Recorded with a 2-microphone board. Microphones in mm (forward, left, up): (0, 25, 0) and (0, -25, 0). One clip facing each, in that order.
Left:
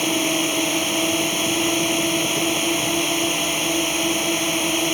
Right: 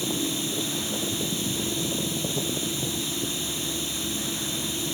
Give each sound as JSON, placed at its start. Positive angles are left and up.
{"t": 0.0, "sound": "a drone", "side_deg": 65}